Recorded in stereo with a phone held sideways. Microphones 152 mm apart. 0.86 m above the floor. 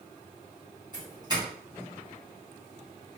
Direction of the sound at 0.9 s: 25° right (ahead or behind).